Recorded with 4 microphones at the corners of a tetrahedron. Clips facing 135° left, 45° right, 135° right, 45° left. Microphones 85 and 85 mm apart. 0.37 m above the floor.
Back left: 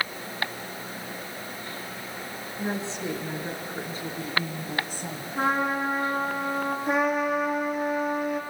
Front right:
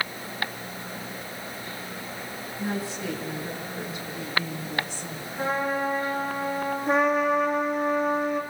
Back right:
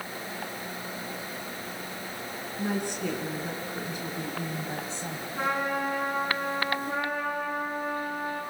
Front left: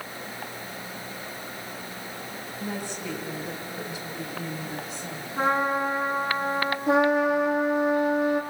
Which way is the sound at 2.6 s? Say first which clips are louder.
Even, back right 4 dB; 160° right.